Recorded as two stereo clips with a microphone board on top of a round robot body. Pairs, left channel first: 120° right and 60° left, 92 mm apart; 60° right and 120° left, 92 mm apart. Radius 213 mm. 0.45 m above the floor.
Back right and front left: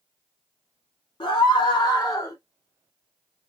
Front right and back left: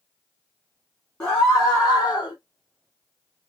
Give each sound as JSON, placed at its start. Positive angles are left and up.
{"t": 1.2, "sound": "a scream", "azimuth_deg": -120, "distance_m": 1.9}